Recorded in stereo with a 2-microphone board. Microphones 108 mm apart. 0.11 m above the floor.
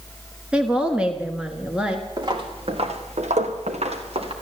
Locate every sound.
0.5 s a woman speaking: 10° right (ahead or behind), 1.5 m
2.2 s footsteps: 40° right (ahead or behind), 2 m; by 4.3 s 55° right (ahead or behind), 2.5 m